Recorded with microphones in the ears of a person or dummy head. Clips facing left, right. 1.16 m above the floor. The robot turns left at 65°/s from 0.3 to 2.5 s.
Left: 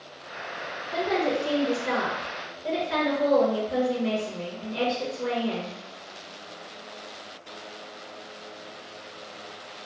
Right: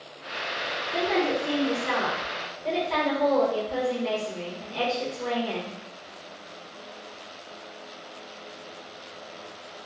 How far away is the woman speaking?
About 0.9 m.